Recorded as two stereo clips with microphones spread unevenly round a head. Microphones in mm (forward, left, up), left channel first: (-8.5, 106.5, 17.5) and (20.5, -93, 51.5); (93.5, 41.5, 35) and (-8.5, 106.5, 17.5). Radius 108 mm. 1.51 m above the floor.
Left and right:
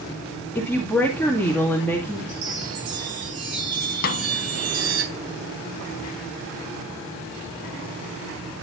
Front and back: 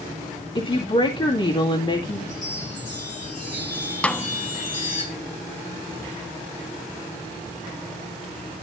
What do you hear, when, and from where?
0.6 s a woman speaking: 10° left, 2.5 m
2.3 s a chime: 80° right, 3.5 m
4.0 s a snare drum: 45° left, 0.8 m